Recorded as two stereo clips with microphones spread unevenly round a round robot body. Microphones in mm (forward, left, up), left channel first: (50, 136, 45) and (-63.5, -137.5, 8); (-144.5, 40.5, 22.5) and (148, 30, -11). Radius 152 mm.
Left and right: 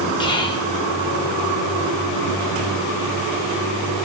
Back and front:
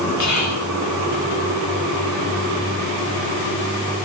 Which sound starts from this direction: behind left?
Whispering, at 0.2 s.